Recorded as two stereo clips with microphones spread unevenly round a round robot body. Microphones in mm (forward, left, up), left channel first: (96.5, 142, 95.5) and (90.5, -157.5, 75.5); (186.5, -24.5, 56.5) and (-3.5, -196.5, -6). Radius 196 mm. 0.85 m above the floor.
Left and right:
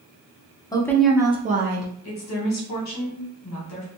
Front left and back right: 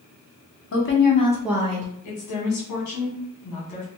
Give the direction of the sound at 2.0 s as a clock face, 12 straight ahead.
10 o'clock.